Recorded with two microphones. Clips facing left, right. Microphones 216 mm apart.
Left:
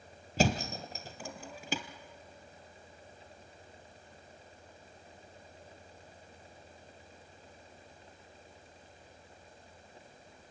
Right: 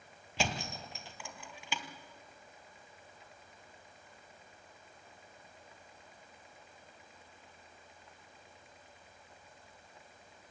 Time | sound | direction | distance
0.4 | a thud | 40° left (ahead or behind) | 1.3 m